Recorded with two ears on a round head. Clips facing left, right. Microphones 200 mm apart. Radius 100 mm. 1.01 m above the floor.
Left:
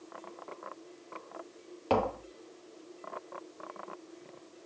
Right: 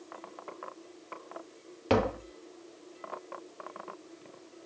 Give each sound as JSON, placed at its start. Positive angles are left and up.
{"t": 1.9, "sound": "tapping", "side_deg": -25}